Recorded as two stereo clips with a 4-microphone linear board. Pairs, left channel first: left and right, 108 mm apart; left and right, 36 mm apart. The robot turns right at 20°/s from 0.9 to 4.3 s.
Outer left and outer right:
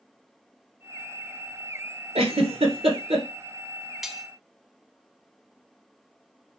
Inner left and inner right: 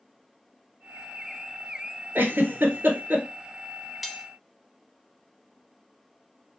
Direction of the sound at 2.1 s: 75° right (ahead or behind).